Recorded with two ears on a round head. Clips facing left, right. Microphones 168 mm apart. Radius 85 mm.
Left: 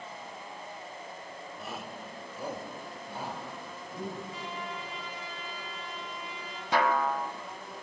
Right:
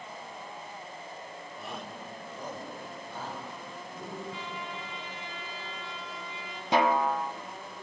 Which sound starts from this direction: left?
A trumpet, at 4.3 s.